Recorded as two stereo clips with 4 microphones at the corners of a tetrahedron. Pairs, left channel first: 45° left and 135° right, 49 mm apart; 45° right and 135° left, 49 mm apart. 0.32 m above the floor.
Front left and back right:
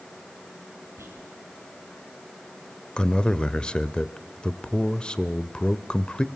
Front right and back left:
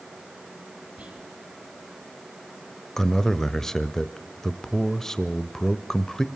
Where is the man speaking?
20° left, 1.0 m.